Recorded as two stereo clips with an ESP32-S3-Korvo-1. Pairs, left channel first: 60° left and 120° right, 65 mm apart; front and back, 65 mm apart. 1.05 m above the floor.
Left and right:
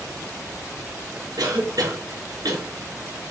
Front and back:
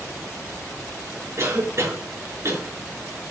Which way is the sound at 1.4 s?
135° right.